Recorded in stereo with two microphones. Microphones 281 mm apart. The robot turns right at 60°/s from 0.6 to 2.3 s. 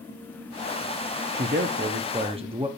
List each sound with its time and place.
1.3 s a man speaking: 90° right, 0.6 m; by 2.7 s 35° right, 0.6 m